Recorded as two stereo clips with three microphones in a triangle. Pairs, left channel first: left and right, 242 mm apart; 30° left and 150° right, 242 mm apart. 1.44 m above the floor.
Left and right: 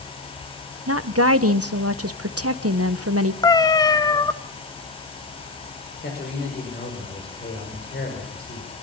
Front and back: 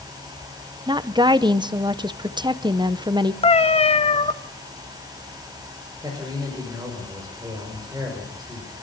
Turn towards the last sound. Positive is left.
turn(degrees=135)